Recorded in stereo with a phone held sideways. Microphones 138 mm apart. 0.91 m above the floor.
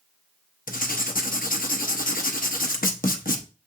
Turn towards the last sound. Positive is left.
turn(degrees=75)  # may be behind; listen again after turning